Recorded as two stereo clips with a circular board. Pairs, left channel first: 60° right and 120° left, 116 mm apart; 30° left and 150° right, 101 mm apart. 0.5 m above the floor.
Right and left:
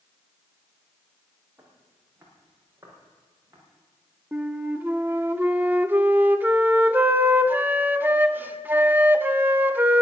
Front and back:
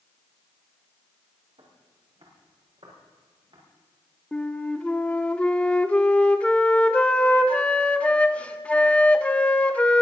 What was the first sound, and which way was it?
Footsteps, 165° right.